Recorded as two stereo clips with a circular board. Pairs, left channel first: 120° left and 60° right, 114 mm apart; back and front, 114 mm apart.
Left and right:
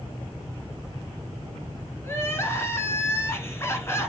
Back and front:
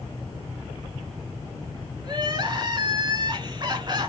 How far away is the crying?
About 2.5 m.